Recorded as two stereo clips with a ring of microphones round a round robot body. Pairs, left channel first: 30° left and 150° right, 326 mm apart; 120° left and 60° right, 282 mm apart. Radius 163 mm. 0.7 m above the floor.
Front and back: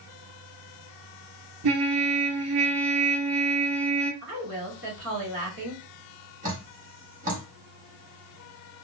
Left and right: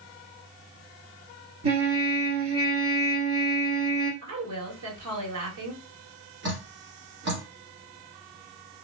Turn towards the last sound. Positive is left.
turn(degrees=-95)